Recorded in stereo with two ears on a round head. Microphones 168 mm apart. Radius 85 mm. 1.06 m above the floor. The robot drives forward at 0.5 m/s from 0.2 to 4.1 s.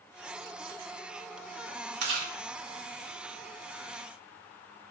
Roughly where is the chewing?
Right.